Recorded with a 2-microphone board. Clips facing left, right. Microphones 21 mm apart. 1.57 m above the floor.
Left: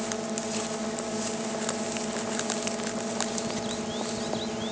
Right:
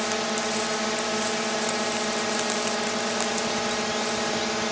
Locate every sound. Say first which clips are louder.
0.0 s a drone: right 6 dB; 60° right (ahead or behind)